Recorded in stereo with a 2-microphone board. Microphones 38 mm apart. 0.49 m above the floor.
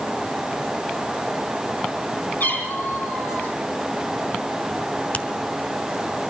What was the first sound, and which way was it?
A cat meowing, 65° left (ahead or behind).